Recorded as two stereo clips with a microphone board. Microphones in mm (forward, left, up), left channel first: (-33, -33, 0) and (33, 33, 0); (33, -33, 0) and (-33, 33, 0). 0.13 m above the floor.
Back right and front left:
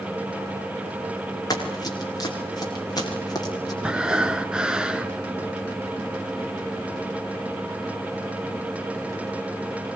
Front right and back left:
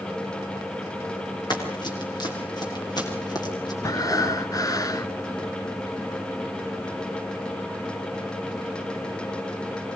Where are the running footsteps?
85° right, 6.5 m; by 3.7 s 90° right, 9 m.